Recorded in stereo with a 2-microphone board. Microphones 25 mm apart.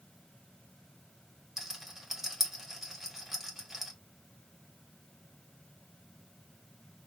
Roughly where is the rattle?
Centre.